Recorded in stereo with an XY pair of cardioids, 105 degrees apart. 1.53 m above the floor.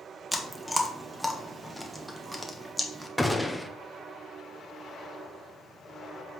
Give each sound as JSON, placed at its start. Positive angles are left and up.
{"t": 0.3, "sound": "chewing", "azimuth_deg": 0, "distance_m": 1.3}
{"t": 3.2, "sound": "a gunshot", "azimuth_deg": 0, "distance_m": 0.8}